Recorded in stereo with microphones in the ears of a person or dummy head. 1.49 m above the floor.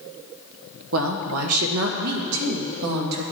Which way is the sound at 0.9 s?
70° right (ahead or behind).